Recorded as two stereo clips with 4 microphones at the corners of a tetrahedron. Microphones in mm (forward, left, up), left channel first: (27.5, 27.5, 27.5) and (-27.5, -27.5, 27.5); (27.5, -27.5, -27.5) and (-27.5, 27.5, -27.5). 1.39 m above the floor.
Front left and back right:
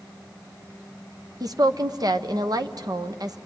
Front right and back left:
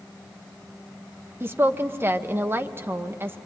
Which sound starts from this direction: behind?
A woman speaking, at 1.4 s.